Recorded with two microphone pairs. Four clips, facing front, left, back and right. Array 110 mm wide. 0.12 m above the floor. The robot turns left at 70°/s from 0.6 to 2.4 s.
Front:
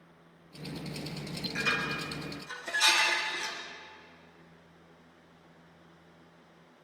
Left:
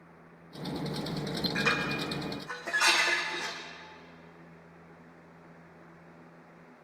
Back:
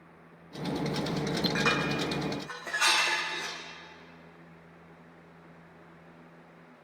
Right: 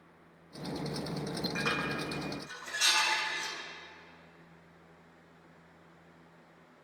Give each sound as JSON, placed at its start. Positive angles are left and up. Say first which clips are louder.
{"t": 1.6, "sound": "dishes clattering", "louder": "left 4 dB, back 1 dB", "azimuth_deg": -170, "distance_m": 4.5}